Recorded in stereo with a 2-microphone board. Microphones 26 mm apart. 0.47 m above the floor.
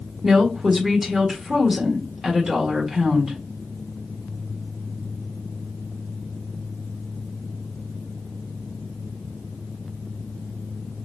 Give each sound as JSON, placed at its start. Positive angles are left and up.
{"t": 0.2, "sound": "a woman speaking", "side_deg": -20, "distance_m": 1.5}